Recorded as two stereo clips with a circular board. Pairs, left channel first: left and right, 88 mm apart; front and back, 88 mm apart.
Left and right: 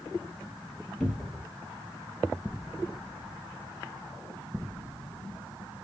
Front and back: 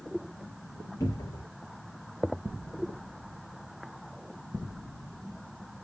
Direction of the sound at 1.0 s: 10° left.